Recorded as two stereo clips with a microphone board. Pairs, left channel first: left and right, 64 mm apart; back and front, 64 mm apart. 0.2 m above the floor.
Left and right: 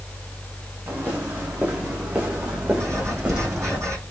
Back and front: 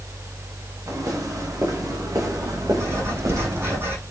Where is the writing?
50° right, 7 m.